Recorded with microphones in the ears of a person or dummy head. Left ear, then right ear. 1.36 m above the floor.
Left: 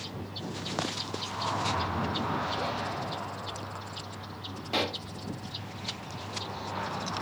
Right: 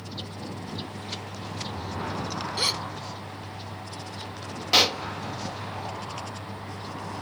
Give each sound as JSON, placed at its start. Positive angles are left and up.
{"t": 2.6, "sound": "a gasp", "side_deg": -80}
{"t": 4.7, "sound": "a pop", "side_deg": -45}